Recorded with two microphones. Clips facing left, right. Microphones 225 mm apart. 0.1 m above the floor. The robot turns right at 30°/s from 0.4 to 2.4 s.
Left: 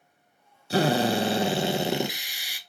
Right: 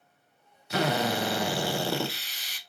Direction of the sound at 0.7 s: 110° left.